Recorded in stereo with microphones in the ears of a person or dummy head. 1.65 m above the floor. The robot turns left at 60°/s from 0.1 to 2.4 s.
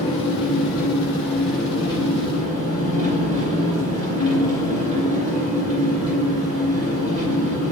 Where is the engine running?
90° left, 1.4 m; by 7.7 s 45° right, 1.4 m.